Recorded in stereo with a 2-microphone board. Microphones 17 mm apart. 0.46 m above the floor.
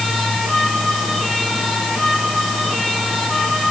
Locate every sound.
Only background noise.